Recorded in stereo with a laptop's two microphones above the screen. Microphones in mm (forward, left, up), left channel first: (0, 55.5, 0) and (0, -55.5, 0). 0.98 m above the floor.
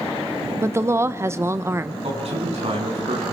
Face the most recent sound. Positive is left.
turn(degrees=-65)  # may be behind; listen again after turning